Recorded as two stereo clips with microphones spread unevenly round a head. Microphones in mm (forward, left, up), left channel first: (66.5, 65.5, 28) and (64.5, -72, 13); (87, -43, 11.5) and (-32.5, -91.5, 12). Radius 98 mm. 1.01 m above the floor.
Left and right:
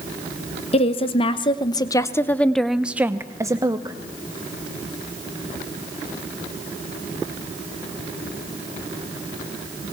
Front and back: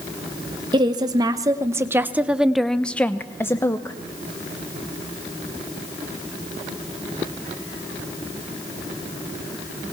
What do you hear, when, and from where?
0.7 s a woman speaking: 140° left, 1.2 m; by 4.0 s 40° right, 1.0 m